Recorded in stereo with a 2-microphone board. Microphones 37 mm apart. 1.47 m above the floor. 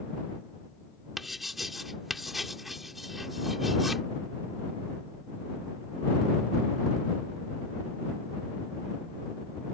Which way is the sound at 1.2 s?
5° right (ahead or behind).